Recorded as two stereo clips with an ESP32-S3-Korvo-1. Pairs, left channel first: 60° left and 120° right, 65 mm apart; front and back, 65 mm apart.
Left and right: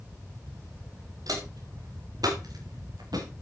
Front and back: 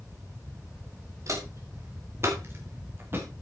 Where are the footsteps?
140° right, 5.5 m; by 3.2 s 125° right, 5 m.